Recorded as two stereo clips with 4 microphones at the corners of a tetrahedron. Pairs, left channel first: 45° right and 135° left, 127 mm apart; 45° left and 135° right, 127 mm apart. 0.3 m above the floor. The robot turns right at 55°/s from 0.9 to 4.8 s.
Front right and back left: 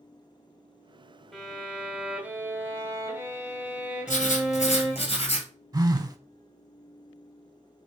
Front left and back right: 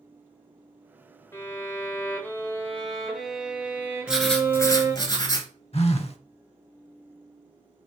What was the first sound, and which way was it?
A violin, 35° left.